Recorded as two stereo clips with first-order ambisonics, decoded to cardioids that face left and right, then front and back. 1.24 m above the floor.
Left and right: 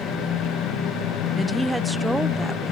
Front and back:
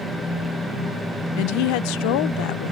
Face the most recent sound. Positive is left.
turn(degrees=0)